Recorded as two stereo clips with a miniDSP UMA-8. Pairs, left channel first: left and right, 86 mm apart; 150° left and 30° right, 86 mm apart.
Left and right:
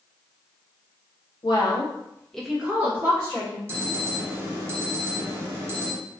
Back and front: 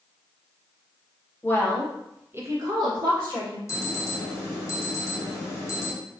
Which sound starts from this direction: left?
A woman speaking, at 1.4 s.